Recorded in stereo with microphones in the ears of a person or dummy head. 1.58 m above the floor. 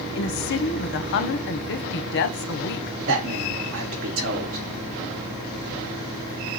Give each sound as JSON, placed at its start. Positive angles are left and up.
{"t": 0.1, "sound": "a woman speaking", "side_deg": 60, "distance_m": 0.8}
{"t": 3.1, "sound": "a man speaking", "side_deg": -70, "distance_m": 1.4}